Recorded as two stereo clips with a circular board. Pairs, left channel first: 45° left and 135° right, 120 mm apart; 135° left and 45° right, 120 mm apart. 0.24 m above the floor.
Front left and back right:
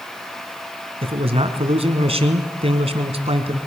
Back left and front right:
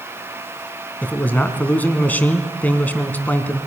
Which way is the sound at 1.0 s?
150° right.